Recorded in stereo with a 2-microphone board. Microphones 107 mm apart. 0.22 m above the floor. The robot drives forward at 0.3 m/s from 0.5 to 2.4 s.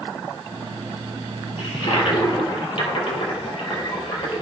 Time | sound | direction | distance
1.6 | a toilet flushing | 65° left (ahead or behind) | 3 m